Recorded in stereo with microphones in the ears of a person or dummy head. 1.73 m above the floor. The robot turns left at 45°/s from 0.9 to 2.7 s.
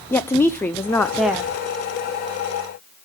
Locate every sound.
0.1 s a woman speaking: 15° left (ahead or behind), 0.6 m; by 1.5 s 10° right (ahead or behind), 0.6 m